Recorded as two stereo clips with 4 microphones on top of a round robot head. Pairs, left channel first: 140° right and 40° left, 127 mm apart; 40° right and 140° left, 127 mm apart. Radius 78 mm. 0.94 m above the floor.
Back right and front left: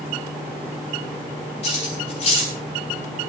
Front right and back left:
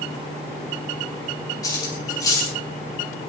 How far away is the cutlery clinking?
About 7.5 m.